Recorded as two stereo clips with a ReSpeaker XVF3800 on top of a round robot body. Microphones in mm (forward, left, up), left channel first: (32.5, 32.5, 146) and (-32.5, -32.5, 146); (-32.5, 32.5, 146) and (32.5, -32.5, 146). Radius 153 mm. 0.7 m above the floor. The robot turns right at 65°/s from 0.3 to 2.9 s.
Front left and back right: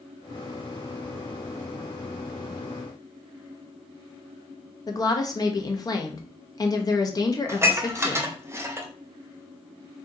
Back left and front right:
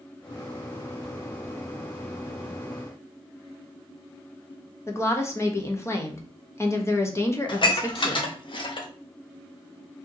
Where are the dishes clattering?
165° left, 0.9 m.